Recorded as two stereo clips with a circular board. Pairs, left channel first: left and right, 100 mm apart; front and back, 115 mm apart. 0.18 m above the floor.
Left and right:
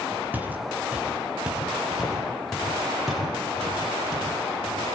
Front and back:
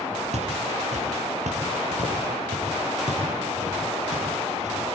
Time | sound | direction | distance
0.3 | footsteps | 165° right | 3 m